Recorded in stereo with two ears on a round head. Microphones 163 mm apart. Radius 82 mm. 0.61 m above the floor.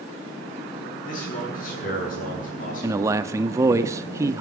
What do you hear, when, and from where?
1.1 s a man speaking: 45° left (ahead or behind), 8.5 m
2.8 s a man speaking: 15° right (ahead or behind), 0.6 m